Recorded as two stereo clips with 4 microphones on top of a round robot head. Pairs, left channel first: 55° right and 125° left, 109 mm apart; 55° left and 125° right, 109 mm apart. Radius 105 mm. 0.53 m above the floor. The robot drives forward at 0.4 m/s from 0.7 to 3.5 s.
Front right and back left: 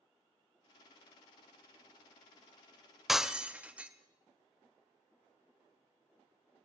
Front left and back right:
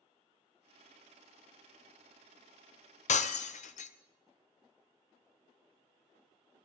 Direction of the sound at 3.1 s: 40° left.